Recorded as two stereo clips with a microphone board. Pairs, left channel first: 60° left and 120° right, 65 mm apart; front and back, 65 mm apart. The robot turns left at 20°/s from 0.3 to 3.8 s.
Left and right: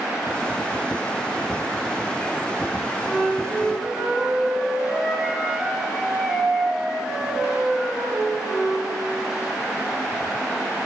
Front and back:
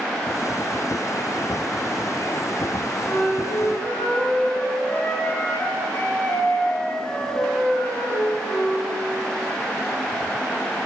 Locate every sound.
3.0 s a flute: 15° right, 1.7 m; by 8.8 s 30° right, 1.7 m